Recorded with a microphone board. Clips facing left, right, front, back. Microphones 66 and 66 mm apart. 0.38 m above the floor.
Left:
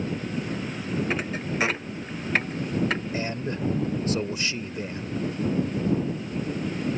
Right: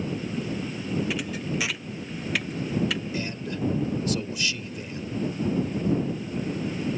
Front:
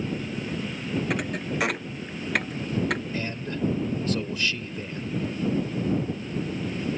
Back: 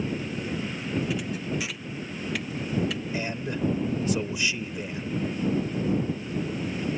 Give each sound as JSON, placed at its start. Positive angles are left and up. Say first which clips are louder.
{"t": 1.1, "sound": "a thud", "louder": "left 1 dB, front 1 dB", "azimuth_deg": 40}
{"t": 3.1, "sound": "a man speaking", "louder": "left 2 dB, back 1 dB", "azimuth_deg": 110}